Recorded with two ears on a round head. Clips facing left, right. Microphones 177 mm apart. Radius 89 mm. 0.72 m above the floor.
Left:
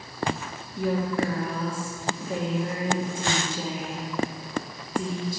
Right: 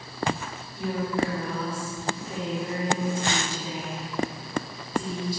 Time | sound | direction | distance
0.8 | a woman speaking | 45° left (ahead or behind) | 1.4 m